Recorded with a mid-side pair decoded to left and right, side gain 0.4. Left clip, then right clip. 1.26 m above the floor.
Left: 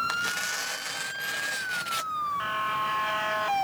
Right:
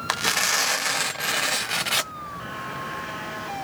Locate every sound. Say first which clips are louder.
0.1 s tearing paper: right 6 dB; 70° right